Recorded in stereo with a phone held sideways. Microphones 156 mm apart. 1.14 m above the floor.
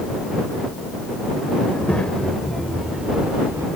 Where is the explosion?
I don't hear an explosion.